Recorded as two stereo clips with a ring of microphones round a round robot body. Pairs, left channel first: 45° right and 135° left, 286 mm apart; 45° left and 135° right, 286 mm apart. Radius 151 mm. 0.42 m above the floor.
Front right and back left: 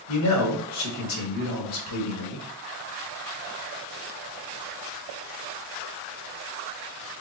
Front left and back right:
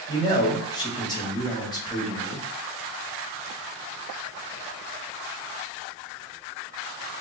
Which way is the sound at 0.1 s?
30° right.